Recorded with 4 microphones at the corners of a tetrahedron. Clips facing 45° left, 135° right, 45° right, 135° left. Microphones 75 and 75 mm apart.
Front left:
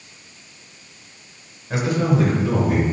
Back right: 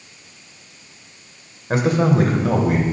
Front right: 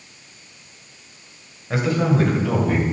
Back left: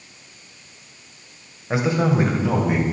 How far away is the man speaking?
About 1.8 m.